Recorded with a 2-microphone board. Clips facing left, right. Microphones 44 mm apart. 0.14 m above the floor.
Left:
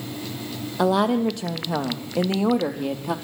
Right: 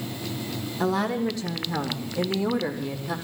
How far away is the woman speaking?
About 4 m.